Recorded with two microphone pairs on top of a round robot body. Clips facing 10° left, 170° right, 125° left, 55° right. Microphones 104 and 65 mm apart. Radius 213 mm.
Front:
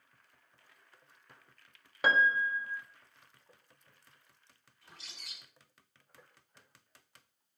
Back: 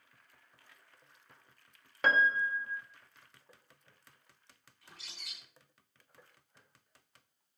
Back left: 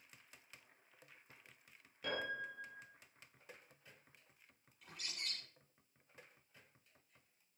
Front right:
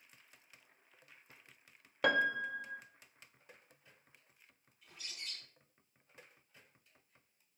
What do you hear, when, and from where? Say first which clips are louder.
2.0 s a piano: front 1 dB, front right 11 dB; 75° right, 1.4 m
4.8 s a bird: even, back left 2 dB; 100° left, 9 m